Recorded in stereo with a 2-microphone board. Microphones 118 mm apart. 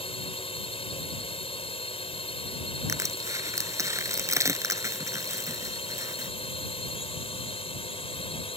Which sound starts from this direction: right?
Crushing, at 2.9 s.